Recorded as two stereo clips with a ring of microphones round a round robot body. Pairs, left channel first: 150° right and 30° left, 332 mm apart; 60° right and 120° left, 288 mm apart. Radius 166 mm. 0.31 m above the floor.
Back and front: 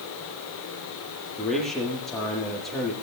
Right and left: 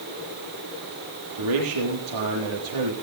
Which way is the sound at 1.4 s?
120° left.